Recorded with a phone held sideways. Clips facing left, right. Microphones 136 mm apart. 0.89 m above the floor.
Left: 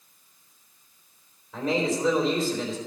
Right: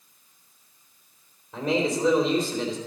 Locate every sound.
1.5 s a man speaking: 20° right (ahead or behind), 3.5 m